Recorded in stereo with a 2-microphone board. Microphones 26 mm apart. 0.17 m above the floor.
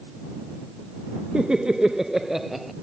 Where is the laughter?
40° right (ahead or behind); by 2.7 s 5° right (ahead or behind).